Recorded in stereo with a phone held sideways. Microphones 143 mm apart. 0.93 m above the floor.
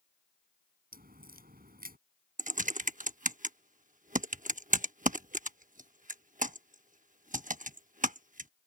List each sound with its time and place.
0.9 s a crack: 75° right (ahead or behind)
2.4 s typing on a keyboard: 60° right (ahead or behind)